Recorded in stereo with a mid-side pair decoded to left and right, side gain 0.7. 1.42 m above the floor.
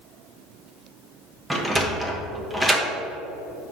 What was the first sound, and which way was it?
A sliding door, 10° right.